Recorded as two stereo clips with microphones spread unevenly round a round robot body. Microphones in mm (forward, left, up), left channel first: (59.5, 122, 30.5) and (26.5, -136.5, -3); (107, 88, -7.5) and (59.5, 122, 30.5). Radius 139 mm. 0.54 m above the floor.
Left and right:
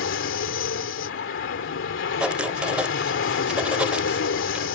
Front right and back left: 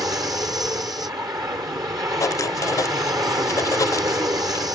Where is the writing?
10° right.